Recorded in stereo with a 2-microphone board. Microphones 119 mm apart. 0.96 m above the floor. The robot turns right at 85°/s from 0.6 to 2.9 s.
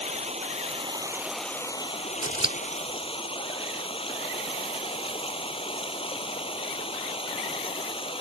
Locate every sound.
0.0 s running water: 65° right; by 8.2 s 130° left
2.2 s scissors: 35° right (ahead or behind); by 2.6 s 45° right (ahead or behind)